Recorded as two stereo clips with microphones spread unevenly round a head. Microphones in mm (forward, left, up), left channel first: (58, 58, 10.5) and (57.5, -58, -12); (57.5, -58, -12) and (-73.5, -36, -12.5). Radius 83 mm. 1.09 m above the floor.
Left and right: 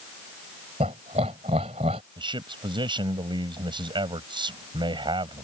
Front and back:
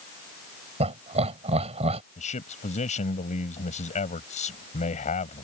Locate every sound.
0.8 s laughter: 150° right
2.2 s a man speaking: 40° right